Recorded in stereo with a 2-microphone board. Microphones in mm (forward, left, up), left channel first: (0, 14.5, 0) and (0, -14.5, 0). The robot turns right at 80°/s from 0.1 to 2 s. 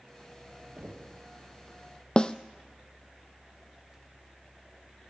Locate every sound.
0.8 s knocking: 80° right, 2.5 m; by 1.2 s 45° right, 2.5 m
2.2 s a snare drum: 30° left (ahead or behind), 0.7 m